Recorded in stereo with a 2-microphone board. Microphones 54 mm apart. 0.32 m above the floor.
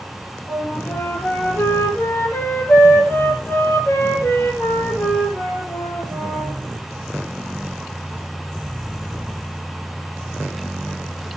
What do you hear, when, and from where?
0.5 s a flute: 40° left (ahead or behind), 4 m